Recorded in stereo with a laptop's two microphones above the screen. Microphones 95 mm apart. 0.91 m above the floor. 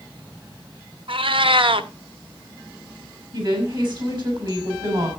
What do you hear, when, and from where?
1.1 s a cat meowing: 65° right (ahead or behind), 0.7 m
3.3 s a woman speaking: 50° right (ahead or behind), 6 m